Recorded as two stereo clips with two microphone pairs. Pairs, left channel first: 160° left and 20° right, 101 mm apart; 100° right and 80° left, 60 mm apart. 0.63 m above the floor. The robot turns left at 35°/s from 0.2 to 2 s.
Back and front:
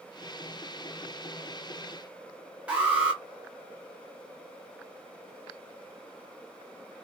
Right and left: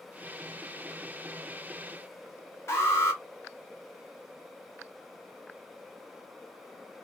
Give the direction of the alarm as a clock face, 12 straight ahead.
3 o'clock.